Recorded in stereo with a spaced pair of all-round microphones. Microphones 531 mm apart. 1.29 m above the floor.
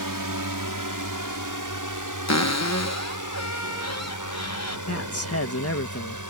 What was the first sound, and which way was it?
A drone, 35° right (ahead or behind).